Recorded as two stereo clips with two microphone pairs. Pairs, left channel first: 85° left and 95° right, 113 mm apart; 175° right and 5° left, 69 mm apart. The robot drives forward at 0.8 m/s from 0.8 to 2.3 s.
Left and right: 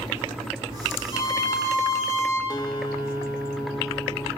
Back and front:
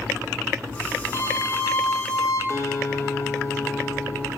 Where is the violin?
135° left, 2.0 m; by 2.4 s 150° left, 2.5 m.